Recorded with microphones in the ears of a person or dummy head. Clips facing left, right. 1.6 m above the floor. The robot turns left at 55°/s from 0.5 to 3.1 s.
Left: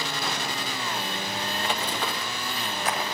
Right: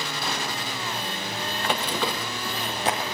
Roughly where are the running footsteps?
Right.